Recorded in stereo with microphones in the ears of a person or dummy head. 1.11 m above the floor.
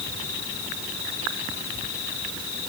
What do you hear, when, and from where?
Only background noise.